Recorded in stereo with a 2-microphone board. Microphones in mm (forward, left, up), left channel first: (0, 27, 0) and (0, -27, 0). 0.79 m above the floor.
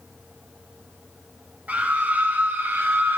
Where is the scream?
30° right (ahead or behind), 4.5 m; by 3.2 s 40° right (ahead or behind), 5 m.